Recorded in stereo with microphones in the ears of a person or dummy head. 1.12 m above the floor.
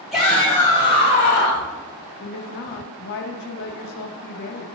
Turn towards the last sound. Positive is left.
turn(degrees=60)  # may be behind; listen again after turning